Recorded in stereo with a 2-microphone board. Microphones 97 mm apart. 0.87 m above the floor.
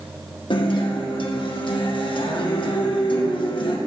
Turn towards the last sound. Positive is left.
turn(degrees=55)  # may be behind; listen again after turning